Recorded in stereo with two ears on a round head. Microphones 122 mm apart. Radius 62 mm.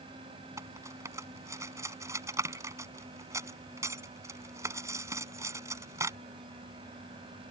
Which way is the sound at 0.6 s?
25° right (ahead or behind).